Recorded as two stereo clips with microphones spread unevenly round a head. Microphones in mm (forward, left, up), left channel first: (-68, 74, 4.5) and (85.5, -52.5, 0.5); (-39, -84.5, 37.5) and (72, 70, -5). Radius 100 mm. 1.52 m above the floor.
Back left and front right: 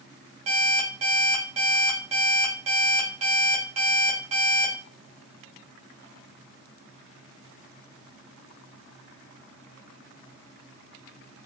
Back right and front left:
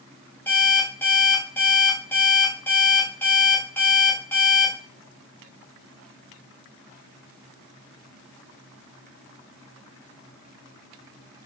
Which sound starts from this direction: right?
An alarm clock, at 0.5 s.